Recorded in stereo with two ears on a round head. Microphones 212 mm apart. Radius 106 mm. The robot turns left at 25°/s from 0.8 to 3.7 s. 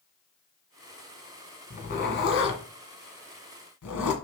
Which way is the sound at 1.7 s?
40° left (ahead or behind).